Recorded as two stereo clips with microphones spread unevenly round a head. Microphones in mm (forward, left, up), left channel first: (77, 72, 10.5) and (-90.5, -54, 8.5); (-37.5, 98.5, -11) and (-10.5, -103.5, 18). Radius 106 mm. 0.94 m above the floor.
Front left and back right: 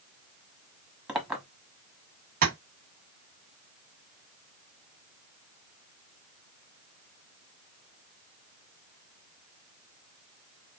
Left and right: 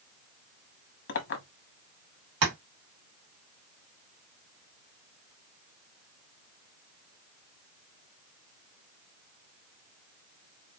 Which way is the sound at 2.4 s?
90° right.